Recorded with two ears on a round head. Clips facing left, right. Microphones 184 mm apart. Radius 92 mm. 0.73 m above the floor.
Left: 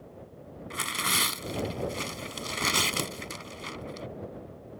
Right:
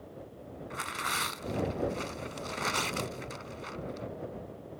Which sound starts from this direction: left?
Tearing paper, at 0.7 s.